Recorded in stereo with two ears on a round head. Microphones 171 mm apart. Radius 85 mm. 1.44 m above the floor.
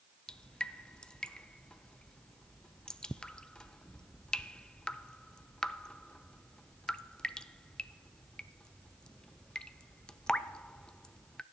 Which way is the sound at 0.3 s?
5° left (ahead or behind).